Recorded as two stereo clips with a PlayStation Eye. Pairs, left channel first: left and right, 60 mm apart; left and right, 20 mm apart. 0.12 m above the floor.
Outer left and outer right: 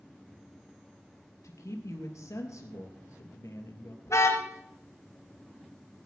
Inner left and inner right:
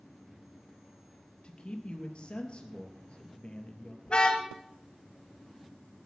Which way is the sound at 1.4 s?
55° left (ahead or behind).